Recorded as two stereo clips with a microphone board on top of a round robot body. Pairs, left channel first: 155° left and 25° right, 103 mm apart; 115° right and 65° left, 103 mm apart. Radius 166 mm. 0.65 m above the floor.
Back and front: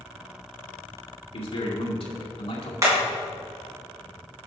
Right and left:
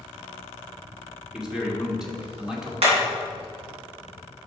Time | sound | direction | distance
1.3 | a man speaking | 150° left | 1.8 m
2.8 | hammering | 35° left | 3 m